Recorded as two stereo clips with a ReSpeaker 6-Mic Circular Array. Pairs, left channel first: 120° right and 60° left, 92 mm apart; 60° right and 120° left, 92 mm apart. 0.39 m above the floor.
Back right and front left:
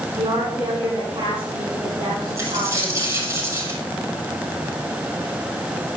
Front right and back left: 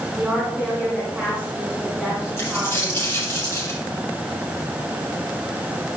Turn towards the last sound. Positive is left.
turn(degrees=5)